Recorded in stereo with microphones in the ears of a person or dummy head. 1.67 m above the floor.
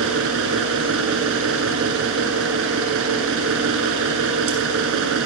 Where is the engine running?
75° right (ahead or behind), 7.5 m.